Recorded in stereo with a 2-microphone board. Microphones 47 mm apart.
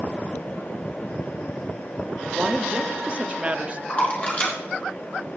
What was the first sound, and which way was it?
A woman speaking, 30° right (ahead or behind).